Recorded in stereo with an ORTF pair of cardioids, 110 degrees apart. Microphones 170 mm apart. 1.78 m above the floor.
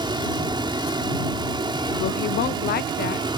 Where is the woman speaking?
70° left.